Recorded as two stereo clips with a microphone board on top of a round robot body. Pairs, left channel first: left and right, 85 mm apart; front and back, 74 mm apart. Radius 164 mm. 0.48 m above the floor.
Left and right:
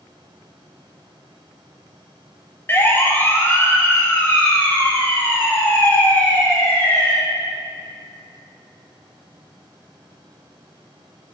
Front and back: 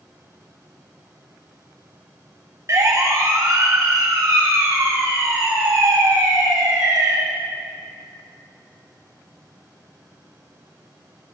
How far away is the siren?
About 2.5 m.